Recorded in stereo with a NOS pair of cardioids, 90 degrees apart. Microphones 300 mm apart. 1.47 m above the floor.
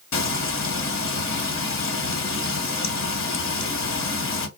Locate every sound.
0.1 s frying: 50° left, 1.2 m